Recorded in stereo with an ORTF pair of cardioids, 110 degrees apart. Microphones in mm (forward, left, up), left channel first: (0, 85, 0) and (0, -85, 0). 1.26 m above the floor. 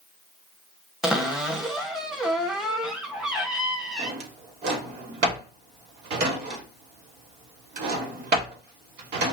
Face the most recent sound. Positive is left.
turn(degrees=-70)